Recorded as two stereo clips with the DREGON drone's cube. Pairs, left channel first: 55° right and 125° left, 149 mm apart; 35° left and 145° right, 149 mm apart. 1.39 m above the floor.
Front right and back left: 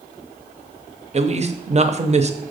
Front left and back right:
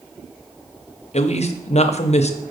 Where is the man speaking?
80° left, 0.6 m.